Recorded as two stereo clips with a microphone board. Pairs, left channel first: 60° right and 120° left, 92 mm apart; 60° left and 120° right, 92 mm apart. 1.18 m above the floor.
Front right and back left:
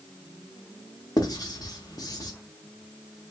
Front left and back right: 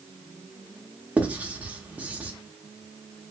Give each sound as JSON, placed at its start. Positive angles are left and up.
{"t": 1.2, "sound": "writing", "azimuth_deg": -55, "distance_m": 0.9}